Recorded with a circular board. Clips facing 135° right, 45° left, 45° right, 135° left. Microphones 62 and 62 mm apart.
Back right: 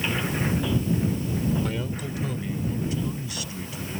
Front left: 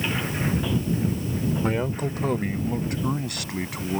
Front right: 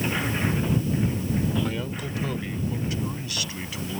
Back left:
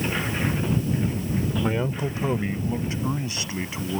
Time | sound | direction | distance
1.6 | a man speaking | 85° left | ?